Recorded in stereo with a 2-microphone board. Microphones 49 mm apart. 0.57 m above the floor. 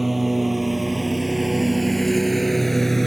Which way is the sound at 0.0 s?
5° right (ahead or behind).